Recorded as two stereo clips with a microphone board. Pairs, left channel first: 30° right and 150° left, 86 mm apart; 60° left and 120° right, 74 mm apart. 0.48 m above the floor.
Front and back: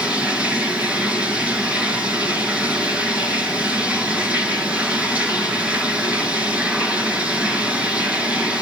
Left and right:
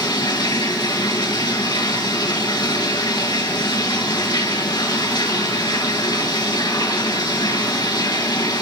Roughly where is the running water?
Left.